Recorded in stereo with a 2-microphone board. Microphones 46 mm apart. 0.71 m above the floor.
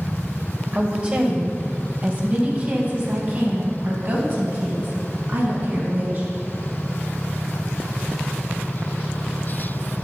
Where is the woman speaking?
25° right (ahead or behind), 2.5 m; by 6.3 s 45° right (ahead or behind), 5.5 m.